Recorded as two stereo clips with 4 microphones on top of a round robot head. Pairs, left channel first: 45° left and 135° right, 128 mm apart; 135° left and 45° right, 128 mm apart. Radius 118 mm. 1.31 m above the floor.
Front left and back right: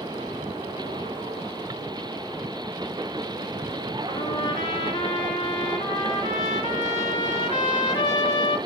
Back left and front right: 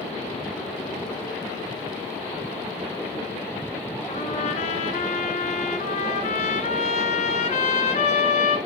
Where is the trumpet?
105° left, 1.8 m.